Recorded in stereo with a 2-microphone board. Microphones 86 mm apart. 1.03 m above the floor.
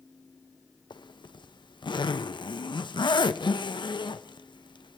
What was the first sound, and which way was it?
A zipper, 65° left (ahead or behind).